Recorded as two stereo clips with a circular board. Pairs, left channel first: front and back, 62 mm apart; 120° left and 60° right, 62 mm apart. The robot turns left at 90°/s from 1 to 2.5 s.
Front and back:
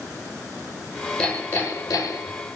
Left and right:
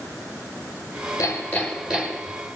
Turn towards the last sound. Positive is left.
turn(degrees=-40)